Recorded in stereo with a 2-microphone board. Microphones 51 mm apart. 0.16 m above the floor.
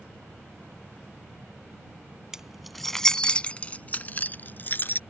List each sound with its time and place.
2.3 s keys jangling: 10° right (ahead or behind); by 5.0 s 40° left (ahead or behind)